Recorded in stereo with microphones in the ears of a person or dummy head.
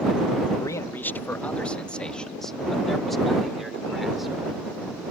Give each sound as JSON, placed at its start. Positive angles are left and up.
{"t": 0.6, "sound": "a man speaking", "side_deg": 25}